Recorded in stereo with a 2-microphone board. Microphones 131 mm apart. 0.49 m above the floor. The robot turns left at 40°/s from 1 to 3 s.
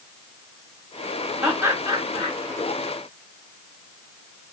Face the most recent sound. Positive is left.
turn(degrees=-70)